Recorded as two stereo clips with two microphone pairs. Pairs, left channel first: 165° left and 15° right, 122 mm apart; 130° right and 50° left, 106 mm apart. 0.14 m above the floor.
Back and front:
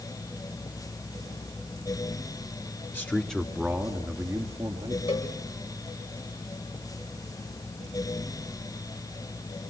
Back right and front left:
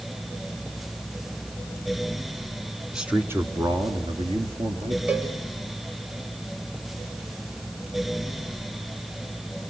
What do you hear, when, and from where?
2.9 s a man speaking: 125° left, 1.6 m; by 5.0 s 45° left, 3.5 m
5.1 s a cowbell: 130° left, 6.5 m